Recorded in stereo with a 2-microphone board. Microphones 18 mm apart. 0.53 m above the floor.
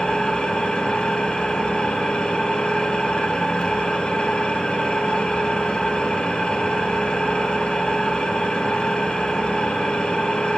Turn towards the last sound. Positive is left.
turn(degrees=75)  # may be behind; listen again after turning